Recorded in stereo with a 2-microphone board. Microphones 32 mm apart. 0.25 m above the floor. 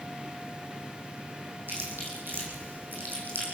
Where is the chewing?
85° right, 6.5 m.